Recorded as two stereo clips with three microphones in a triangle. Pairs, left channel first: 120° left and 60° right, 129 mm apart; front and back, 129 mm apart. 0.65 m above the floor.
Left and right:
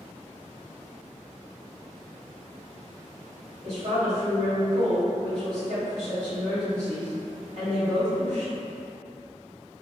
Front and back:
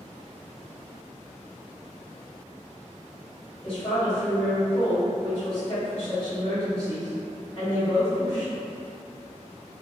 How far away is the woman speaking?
About 1.9 m.